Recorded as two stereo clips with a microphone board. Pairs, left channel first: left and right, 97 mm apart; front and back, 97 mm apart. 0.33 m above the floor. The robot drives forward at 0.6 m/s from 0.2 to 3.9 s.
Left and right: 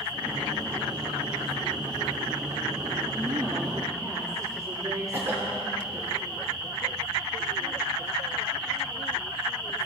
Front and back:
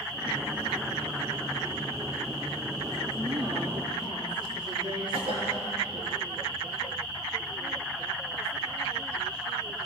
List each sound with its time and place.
3.2 s a woman speaking: 145° right, 6 m
5.1 s a cough: 160° right, 7.5 m